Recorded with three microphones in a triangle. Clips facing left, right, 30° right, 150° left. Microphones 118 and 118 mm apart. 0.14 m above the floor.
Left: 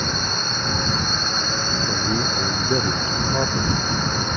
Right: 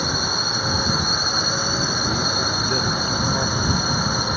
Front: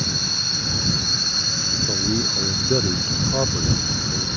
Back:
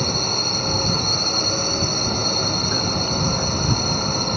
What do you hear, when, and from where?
0.0 s a drone: 170° right
1.9 s a man speaking: 15° left